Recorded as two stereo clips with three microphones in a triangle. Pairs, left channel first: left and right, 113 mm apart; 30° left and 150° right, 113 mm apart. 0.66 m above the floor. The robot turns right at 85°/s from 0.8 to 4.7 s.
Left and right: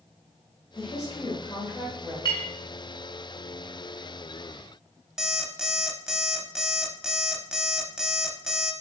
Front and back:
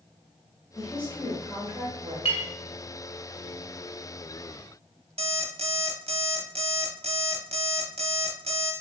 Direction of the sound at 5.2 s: 175° right.